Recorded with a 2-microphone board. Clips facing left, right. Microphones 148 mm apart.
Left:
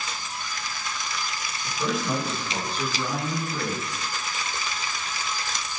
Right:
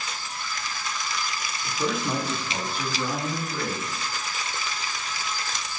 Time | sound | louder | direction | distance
1.6 | a man speaking | even | 25° right (ahead or behind) | 1.2 m